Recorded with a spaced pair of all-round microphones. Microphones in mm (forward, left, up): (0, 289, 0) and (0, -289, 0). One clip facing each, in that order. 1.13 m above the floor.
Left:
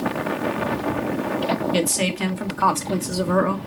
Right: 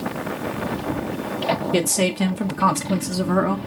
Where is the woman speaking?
65° right (ahead or behind), 1.1 m; by 3.6 s centre (ahead or behind), 0.6 m.